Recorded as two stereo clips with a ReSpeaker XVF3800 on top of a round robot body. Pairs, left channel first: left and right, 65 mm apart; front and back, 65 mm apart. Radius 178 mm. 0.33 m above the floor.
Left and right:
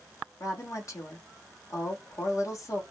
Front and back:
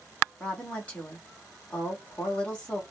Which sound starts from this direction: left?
A woman speaking, at 0.4 s.